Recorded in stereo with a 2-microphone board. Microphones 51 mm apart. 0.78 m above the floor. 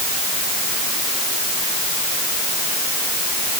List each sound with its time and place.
Only background noise.